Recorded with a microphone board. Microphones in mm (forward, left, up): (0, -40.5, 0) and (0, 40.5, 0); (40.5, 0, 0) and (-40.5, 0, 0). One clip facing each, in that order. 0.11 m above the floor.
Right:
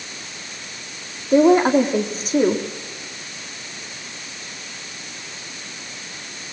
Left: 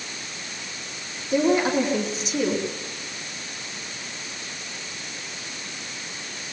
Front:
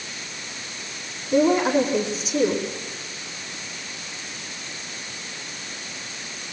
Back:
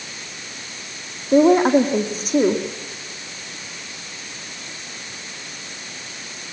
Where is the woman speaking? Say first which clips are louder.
Right 7 dB, back 5 dB; 140° right, 4.5 m.